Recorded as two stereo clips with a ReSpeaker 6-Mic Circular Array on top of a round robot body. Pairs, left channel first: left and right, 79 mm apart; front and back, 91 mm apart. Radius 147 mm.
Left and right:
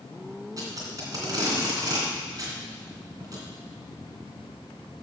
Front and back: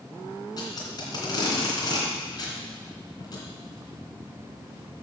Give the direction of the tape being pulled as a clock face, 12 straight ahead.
2 o'clock.